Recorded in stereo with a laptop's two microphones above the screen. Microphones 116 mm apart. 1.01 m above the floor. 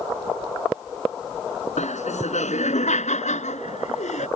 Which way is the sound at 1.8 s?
85° left.